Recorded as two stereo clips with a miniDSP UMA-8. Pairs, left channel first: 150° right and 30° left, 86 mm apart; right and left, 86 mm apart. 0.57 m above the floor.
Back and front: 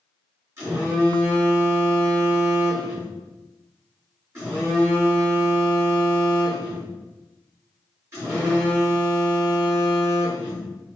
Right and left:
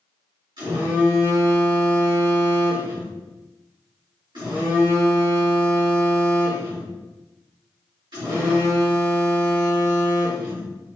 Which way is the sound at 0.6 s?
85° left.